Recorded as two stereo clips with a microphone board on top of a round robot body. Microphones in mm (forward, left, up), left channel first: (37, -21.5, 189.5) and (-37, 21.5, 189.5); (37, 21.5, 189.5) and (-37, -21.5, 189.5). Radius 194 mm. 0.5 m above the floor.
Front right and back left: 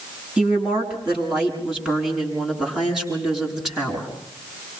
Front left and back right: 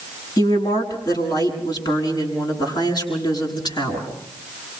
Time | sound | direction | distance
0.4 | a woman speaking | 70° left | 6.5 m